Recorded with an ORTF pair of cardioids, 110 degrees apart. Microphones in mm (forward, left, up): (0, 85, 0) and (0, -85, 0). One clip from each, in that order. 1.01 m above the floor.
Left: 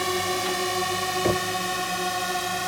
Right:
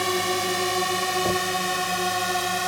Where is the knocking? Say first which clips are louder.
Even; 25° left.